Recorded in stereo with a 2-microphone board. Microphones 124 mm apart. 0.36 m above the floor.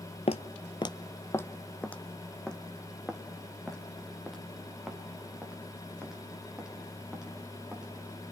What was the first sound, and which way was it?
Footsteps, 60° left (ahead or behind).